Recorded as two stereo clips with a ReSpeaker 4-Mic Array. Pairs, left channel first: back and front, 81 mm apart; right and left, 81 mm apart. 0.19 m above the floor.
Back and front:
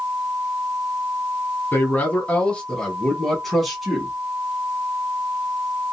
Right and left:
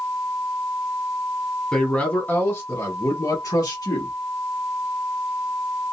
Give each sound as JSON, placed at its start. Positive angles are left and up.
{"t": 1.7, "sound": "a man speaking", "azimuth_deg": -160, "distance_m": 1.1}